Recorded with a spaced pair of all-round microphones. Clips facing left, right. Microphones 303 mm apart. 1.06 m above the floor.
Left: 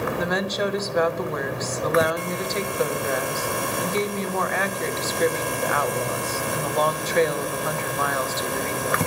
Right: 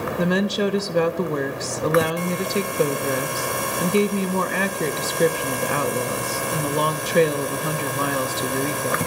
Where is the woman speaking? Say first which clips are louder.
Right 4 dB; 40° right (ahead or behind), 0.7 m.